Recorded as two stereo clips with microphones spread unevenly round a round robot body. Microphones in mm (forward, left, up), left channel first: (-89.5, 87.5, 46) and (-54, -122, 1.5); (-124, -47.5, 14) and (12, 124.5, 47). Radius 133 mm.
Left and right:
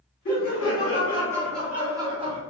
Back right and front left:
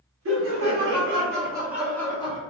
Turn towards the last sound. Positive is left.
turn(degrees=-95)